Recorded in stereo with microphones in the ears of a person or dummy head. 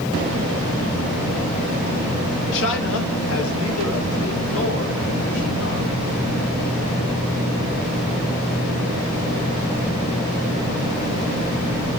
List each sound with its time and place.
2.5 s a man speaking: 65° left (ahead or behind), 1.0 m